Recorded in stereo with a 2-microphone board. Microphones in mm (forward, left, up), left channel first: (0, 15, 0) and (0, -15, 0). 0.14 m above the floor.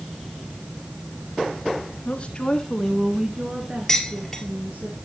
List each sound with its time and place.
2.0 s a woman speaking: 45° left (ahead or behind), 1.5 m; by 4.9 s 65° right (ahead or behind), 3 m
3.9 s dishes clattering: 5° left (ahead or behind), 1.8 m